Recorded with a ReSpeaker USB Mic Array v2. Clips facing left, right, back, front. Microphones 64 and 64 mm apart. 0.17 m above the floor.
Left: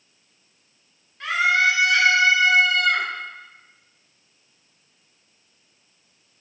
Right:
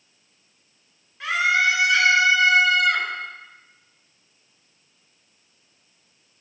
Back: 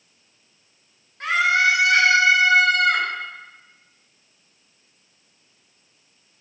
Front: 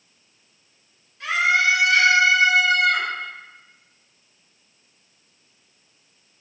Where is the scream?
175° right, 2 m.